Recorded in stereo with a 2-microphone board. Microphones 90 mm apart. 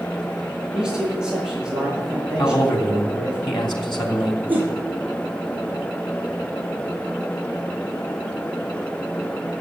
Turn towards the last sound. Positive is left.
turn(degrees=-20)  # may be behind; listen again after turning